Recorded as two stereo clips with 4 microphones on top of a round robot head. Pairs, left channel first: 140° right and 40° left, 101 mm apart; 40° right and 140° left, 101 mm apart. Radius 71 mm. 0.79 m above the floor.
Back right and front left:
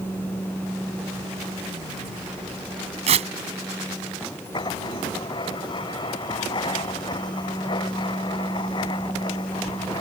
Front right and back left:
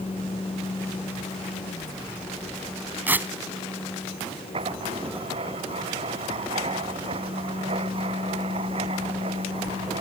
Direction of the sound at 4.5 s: 175° left.